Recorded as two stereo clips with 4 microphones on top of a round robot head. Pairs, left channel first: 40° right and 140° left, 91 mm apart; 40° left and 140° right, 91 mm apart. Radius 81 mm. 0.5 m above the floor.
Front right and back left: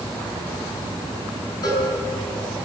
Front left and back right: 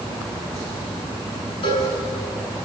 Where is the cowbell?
10° left, 7 m.